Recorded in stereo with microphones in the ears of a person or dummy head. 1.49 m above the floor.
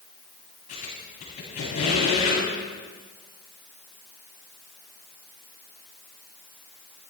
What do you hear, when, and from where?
0.7 s a squeak: 40° left (ahead or behind), 9.5 m